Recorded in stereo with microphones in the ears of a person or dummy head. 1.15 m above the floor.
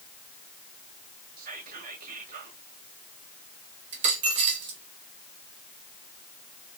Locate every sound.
1.4 s whispering: 45° right (ahead or behind), 0.8 m
3.9 s a dropped coin: 35° right (ahead or behind), 0.6 m